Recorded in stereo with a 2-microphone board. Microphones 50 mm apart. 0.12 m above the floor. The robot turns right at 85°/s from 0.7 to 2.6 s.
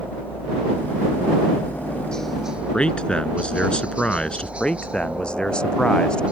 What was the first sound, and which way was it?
A helicopter, 45° left.